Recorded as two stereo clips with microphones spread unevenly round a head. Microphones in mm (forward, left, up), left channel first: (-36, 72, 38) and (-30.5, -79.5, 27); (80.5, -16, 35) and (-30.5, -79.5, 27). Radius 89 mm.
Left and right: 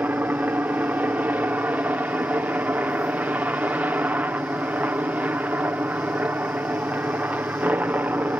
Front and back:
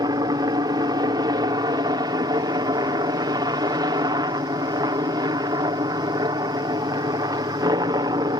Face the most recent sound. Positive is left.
turn(degrees=-155)